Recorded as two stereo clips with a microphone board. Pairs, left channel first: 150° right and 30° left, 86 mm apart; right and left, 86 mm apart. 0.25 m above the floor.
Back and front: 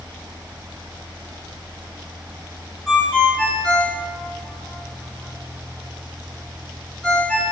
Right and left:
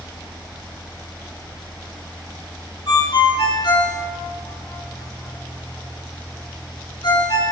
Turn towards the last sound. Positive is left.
turn(degrees=-70)